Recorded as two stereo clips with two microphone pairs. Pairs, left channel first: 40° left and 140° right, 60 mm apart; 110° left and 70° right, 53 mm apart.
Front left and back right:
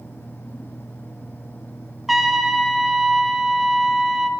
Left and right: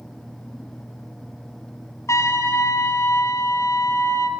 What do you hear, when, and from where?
2.1 s a trumpet: 135° left, 1.4 m